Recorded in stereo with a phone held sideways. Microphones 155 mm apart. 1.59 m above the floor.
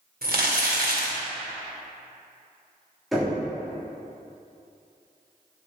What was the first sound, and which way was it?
Crumpling, 80° right.